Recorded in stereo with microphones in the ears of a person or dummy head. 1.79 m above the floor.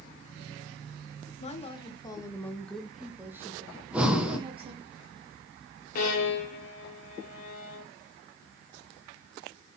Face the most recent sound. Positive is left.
turn(degrees=55)  # may be behind; listen again after turning